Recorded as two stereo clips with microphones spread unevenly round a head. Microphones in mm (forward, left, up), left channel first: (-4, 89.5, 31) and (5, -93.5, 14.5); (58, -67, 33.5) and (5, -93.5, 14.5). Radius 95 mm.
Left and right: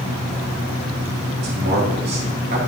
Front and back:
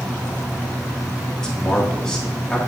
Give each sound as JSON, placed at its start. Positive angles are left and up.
{"t": 1.4, "sound": "a man speaking", "azimuth_deg": -55, "distance_m": 2.5}